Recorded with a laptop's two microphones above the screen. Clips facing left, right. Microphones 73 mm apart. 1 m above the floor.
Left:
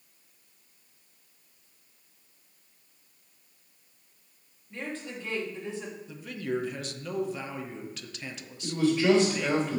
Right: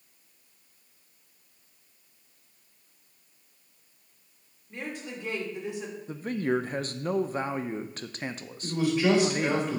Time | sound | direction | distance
4.7 | a woman speaking | 15° right (ahead or behind) | 2.5 m
6.1 | a man speaking | 40° right (ahead or behind) | 0.5 m
8.6 | a man speaking | 10° right (ahead or behind) | 3.5 m